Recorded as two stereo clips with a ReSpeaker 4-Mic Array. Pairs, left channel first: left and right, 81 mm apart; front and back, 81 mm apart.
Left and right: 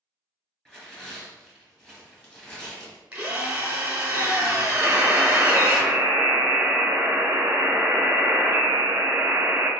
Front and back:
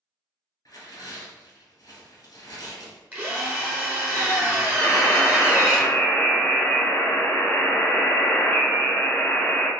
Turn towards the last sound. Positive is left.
turn(degrees=-45)